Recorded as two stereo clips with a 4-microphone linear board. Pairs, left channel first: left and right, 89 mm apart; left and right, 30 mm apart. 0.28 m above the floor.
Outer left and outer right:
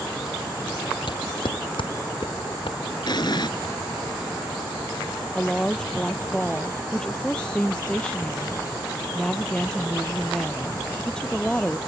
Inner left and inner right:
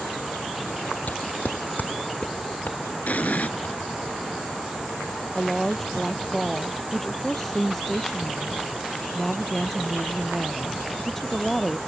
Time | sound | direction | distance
1.1 | footsteps | 70° left (ahead or behind) | ?
3.1 | an explosion | 55° left (ahead or behind) | ?
5.3 | a woman speaking | 10° left (ahead or behind) | ?